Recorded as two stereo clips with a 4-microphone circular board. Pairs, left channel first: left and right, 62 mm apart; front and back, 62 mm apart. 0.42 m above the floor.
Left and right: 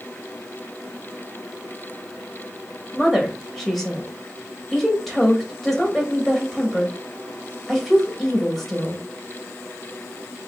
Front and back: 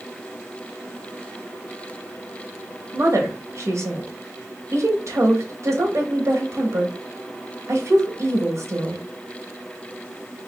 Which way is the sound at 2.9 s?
175° left.